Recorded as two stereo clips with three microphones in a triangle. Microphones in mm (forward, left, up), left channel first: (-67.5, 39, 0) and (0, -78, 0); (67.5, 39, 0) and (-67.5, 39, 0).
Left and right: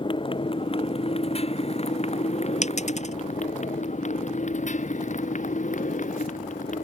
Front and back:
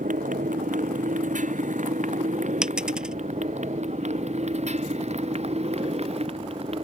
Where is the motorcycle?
170° left; by 6.8 s 140° left.